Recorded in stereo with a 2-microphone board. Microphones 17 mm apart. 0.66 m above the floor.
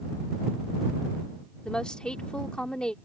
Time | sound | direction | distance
1.6 | a woman speaking | 55° left (ahead or behind) | ?